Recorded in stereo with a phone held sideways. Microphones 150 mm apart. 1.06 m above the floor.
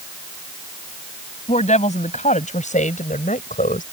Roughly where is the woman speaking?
Left.